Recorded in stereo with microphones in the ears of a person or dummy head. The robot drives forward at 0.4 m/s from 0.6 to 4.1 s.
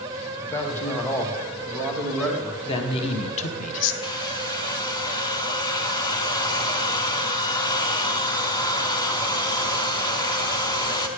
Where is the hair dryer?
25° left (ahead or behind), 0.6 m.